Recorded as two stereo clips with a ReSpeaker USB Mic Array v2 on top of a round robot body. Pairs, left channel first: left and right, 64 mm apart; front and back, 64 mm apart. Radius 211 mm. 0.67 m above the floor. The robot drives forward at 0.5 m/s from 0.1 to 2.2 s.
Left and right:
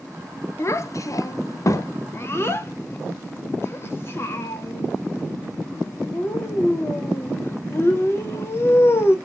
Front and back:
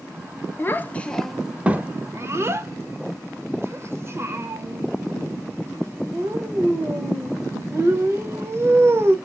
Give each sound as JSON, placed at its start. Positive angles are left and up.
{"t": 0.6, "sound": "a child speaking", "azimuth_deg": 50, "distance_m": 0.7}